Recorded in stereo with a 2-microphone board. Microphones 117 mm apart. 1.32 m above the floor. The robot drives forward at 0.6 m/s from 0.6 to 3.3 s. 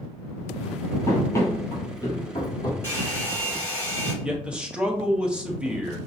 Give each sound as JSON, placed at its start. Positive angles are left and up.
{"t": 1.1, "sound": "running footsteps", "side_deg": 25, "distance_m": 1.4}
{"t": 2.8, "sound": "a hair dryer", "side_deg": 20, "distance_m": 1.9}
{"t": 4.2, "sound": "a man speaking", "side_deg": -10, "distance_m": 0.8}